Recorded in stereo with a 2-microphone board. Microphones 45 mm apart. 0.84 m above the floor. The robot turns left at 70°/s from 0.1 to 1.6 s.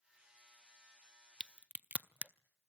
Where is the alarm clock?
No alarm clock in this recording.